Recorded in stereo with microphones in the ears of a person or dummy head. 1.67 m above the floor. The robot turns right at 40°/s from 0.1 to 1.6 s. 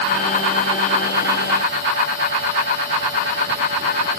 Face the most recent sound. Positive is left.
No sound to turn to.